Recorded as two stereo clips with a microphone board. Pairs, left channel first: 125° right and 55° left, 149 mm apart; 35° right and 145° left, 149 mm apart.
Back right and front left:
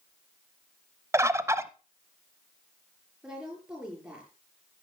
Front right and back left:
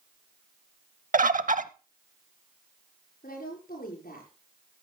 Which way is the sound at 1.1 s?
125° left.